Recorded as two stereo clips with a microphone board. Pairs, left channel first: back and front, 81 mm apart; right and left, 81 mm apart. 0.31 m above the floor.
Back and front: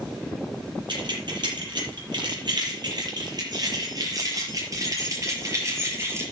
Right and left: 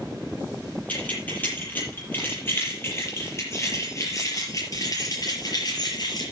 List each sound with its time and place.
0.9 s keys jangling: 20° right, 7 m; by 6.2 s 60° right, 5.5 m